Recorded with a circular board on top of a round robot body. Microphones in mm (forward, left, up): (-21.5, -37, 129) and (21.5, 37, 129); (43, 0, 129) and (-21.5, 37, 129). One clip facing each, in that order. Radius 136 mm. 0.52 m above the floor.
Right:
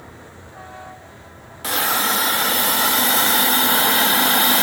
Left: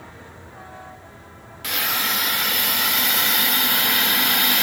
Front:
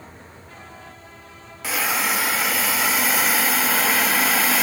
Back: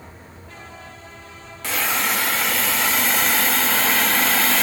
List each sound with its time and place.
1.6 s a hiss: 110° right, 0.6 m